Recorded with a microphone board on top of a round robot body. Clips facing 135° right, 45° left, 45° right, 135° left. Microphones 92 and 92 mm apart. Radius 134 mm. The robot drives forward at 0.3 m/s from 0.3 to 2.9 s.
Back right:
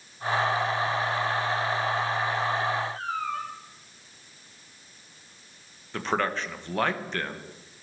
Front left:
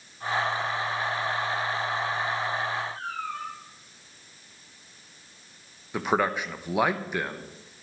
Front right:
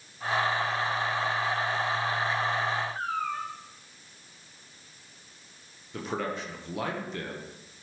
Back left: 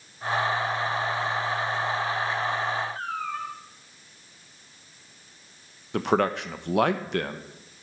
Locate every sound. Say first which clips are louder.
3.0 s a cat meowing: back right 3 dB, even; 130° right, 1.5 m
5.9 s a man speaking: front left 2 dB, back left 9 dB; 125° left, 1.3 m